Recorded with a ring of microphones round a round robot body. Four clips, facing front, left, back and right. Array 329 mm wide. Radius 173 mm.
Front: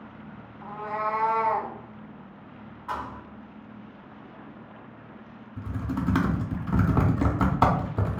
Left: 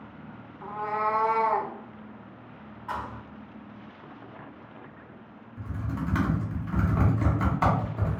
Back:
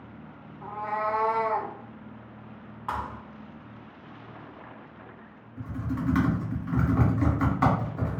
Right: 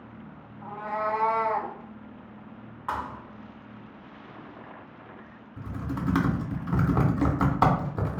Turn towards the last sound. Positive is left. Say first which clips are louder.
# right 1 dB, front 1 dB
turn(degrees=-35)